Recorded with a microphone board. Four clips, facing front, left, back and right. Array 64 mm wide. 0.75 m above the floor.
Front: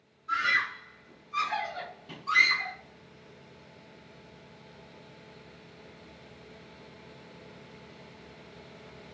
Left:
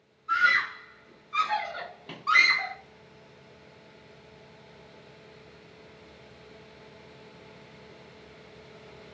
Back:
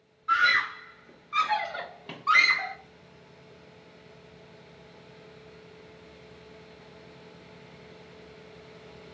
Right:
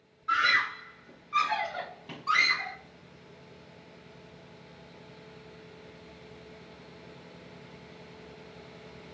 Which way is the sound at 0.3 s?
135° right.